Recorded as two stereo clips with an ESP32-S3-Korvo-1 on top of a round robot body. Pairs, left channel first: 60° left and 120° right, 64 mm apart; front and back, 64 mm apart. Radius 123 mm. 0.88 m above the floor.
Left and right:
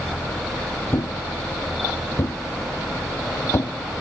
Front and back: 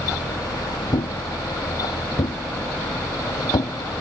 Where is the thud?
5° left.